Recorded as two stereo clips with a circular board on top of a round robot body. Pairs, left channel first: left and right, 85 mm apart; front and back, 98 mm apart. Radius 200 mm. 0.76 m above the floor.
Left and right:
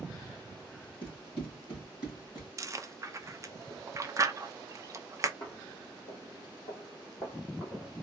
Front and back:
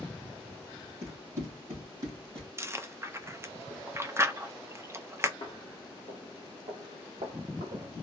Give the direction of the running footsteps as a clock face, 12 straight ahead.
8 o'clock.